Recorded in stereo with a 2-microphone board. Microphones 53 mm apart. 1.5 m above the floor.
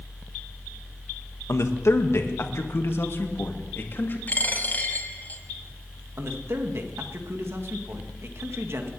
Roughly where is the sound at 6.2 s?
Right.